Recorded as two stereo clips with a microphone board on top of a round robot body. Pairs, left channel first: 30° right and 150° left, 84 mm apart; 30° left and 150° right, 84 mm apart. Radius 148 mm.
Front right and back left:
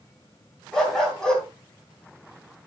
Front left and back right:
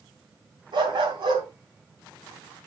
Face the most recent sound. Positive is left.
turn(degrees=-115)